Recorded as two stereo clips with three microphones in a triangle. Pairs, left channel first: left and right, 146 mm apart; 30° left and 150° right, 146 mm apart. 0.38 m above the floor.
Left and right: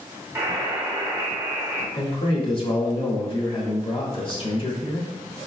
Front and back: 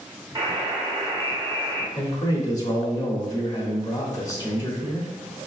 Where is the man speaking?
75° left, 1.1 m.